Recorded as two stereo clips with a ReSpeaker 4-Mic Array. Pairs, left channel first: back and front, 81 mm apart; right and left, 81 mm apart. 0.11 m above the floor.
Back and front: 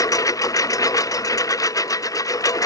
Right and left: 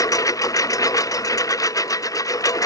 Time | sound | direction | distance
0.0 | a lawn mower | 135° right | ?